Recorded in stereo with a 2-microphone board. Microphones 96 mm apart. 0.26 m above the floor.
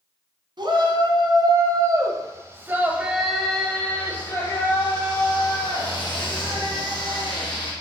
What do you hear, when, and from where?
0.6 s a shout: 60° right (ahead or behind), 1.8 m; by 7.7 s 60° left (ahead or behind), 3 m